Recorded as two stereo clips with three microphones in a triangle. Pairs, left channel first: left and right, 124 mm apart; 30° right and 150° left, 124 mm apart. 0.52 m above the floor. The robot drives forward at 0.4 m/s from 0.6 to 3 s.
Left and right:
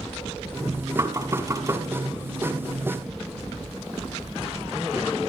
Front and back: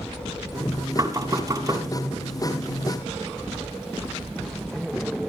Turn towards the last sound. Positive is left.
turn(degrees=-155)